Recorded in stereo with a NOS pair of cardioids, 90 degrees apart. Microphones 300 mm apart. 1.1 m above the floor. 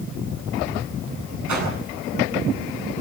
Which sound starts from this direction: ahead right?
A whoosh, at 1.5 s.